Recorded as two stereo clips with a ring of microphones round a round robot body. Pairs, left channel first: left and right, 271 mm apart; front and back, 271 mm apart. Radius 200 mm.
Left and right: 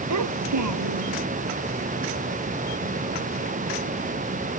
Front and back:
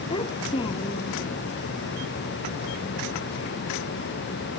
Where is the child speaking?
80° right.